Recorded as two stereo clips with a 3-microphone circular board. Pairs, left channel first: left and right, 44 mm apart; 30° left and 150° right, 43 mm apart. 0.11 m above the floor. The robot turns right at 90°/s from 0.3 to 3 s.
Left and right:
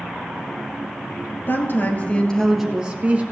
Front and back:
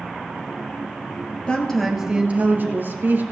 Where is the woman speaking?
85° left, 2 m; by 3.2 s 135° right, 2 m.